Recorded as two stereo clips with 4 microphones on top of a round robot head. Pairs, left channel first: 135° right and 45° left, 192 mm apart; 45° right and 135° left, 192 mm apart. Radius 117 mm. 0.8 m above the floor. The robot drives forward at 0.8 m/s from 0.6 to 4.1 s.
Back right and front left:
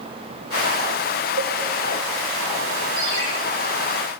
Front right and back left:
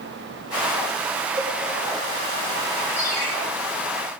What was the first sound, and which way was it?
A cowbell, 60° left.